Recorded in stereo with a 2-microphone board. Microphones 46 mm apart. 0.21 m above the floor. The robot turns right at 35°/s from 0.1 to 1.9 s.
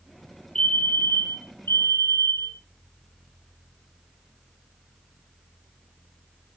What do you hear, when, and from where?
0.6 s a fire alarm: 15° left, 8 m; by 2.6 s 60° left, 8 m